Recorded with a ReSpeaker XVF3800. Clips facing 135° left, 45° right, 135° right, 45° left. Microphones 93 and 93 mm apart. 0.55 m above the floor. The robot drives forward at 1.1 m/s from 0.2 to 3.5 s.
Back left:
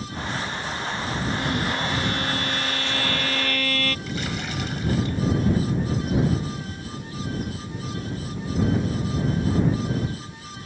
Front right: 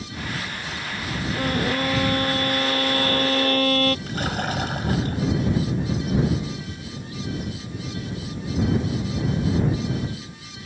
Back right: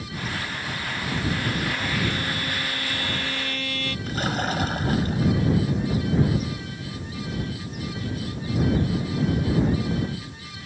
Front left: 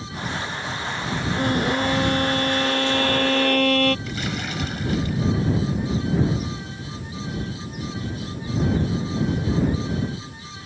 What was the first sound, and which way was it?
A violin, 5° left.